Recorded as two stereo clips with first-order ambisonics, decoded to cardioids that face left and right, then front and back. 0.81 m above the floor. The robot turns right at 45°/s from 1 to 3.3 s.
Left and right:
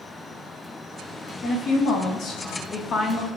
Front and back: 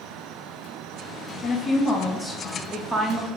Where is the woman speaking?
55° left, 0.6 m; by 3.3 s 140° left, 0.6 m.